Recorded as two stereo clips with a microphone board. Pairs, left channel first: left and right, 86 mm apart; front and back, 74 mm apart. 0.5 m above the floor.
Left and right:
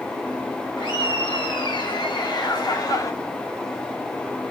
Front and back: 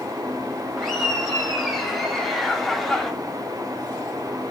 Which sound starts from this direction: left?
Laughter, at 0.8 s.